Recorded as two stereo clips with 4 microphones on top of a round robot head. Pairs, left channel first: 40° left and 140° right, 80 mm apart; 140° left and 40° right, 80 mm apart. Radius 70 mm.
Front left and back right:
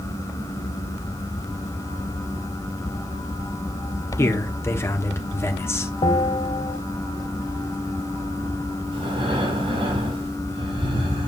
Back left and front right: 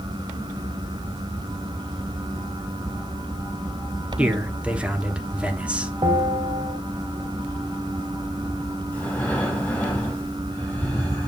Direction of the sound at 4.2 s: 25° left.